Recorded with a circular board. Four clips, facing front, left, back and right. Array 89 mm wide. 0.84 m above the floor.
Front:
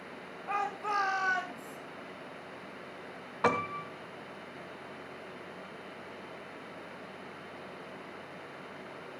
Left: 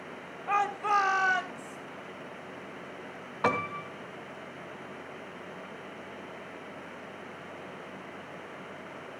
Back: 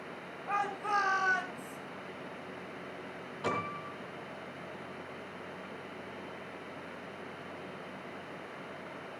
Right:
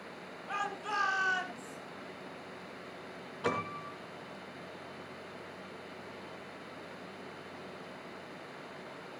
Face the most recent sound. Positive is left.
turn(degrees=50)